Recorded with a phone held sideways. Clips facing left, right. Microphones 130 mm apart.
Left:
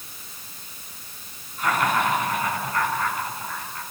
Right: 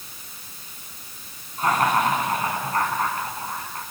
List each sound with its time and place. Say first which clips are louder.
1.6 s laughter: right 2 dB; 35° right (ahead or behind), 10 m; by 3.8 s 45° right (ahead or behind), 9.5 m